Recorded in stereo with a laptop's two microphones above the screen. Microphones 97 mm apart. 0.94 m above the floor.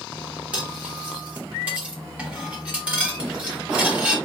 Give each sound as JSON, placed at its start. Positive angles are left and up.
{"t": 0.5, "sound": "cutlery clinking", "side_deg": -15, "distance_m": 1.3}